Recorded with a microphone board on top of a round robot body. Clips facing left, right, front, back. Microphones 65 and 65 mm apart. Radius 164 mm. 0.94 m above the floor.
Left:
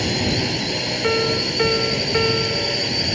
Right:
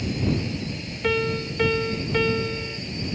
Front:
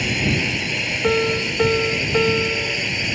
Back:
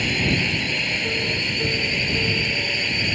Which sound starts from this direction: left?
A drone, at 0.0 s.